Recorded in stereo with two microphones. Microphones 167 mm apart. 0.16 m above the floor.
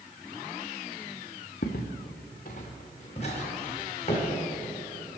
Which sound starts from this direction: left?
Footsteps, at 1.6 s.